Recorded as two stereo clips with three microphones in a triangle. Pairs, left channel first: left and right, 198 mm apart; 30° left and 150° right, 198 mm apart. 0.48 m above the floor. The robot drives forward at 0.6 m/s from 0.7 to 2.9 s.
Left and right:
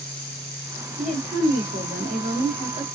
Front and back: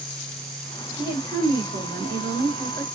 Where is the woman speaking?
110° right, 1.7 m; by 2.9 s 145° right, 2.5 m.